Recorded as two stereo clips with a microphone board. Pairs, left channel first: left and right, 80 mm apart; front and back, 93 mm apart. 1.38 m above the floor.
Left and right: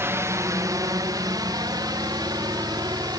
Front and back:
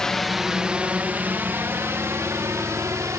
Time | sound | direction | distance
0.0 | a drone | 80° right | ?